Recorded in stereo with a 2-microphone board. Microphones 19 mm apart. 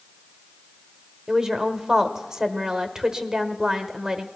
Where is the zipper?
I don't hear a zipper.